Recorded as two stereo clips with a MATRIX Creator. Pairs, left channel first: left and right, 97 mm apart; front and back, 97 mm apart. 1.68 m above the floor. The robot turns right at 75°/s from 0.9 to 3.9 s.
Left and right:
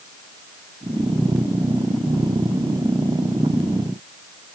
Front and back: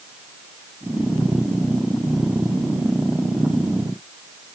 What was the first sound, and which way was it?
Only background noise.